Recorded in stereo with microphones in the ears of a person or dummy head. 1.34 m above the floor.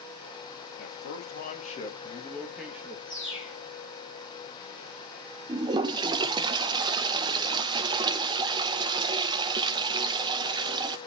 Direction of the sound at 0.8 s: 65° left (ahead or behind).